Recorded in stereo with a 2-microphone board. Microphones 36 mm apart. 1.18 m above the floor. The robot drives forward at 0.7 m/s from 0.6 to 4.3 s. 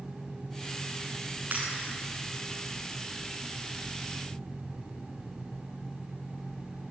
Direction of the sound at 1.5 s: 50° right (ahead or behind).